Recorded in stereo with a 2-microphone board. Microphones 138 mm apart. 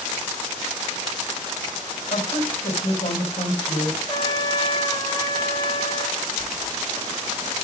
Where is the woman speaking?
60° left (ahead or behind), 3 m.